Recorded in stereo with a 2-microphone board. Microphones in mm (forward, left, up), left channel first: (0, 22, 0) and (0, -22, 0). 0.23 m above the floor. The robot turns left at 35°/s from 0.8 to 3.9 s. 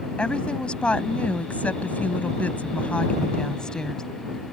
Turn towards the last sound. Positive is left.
turn(degrees=20)